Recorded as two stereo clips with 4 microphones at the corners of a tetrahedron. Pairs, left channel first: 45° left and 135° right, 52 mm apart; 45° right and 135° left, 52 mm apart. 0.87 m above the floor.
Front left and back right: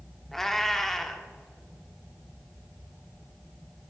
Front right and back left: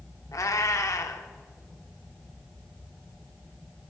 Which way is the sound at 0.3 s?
35° right.